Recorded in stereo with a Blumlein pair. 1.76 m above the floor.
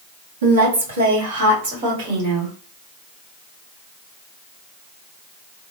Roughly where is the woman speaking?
Ahead right.